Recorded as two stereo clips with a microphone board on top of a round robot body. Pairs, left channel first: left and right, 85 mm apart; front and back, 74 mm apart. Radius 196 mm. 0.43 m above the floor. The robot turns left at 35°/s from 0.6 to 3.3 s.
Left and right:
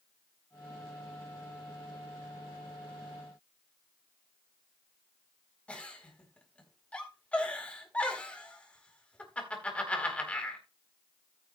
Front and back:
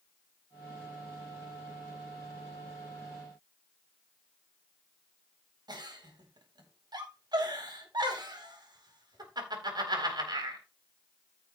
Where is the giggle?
165° left, 4 m.